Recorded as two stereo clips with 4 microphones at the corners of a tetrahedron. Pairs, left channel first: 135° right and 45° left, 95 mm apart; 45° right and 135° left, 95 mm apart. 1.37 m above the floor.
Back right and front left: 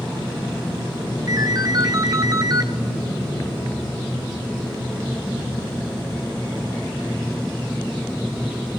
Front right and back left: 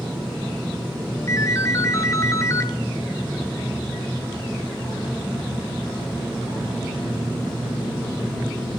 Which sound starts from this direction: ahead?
A ringtone, at 1.3 s.